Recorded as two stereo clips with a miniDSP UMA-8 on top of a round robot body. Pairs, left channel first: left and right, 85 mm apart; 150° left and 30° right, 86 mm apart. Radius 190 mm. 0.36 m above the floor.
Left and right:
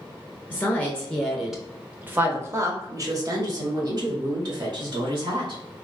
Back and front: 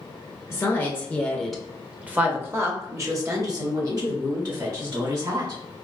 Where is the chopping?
I don't hear chopping.